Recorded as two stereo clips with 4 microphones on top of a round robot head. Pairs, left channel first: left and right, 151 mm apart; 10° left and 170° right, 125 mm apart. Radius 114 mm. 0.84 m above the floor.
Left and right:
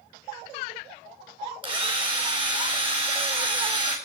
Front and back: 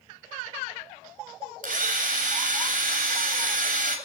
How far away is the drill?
About 3 m.